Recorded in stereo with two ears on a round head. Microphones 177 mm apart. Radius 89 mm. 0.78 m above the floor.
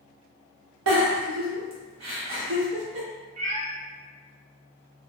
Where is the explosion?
No explosion in this recording.